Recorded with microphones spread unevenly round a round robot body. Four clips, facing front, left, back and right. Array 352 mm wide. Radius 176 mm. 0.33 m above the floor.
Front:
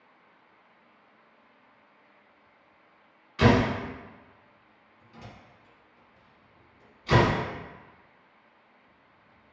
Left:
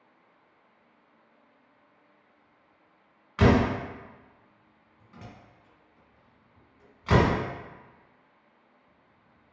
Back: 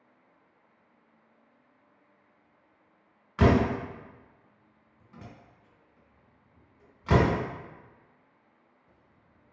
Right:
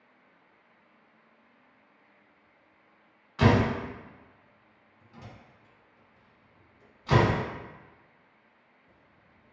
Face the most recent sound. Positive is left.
turn(degrees=140)